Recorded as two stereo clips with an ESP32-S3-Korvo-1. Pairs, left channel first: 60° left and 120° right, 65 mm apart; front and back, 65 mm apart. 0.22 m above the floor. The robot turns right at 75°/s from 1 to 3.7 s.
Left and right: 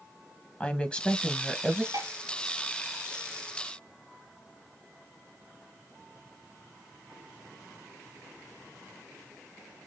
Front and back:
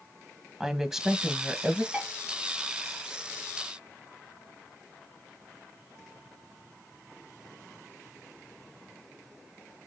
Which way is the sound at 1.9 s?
110° right.